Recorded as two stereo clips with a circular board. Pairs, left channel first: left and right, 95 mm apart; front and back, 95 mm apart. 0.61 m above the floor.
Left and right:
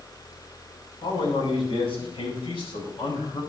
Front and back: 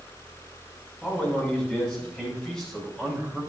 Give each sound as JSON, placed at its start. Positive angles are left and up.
{"t": 1.0, "sound": "a man speaking", "azimuth_deg": 80, "distance_m": 6.0}